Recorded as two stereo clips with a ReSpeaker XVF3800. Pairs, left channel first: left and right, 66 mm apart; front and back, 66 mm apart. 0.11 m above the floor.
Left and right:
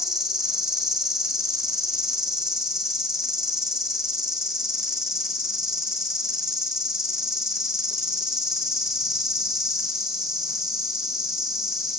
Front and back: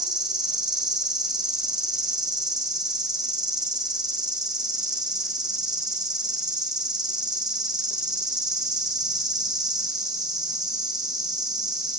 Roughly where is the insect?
Behind.